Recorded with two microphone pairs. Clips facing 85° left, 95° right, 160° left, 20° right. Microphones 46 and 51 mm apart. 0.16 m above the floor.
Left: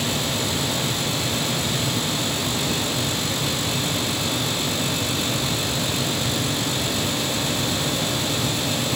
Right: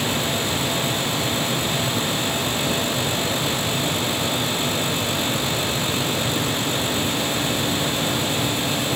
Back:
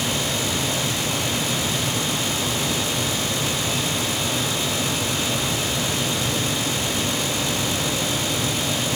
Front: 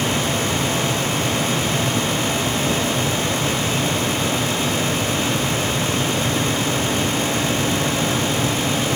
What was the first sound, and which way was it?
Only background noise.